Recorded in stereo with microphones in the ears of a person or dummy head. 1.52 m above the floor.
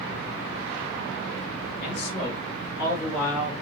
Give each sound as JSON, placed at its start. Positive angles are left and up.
{"t": 1.8, "sound": "a man speaking", "side_deg": 50, "distance_m": 1.2}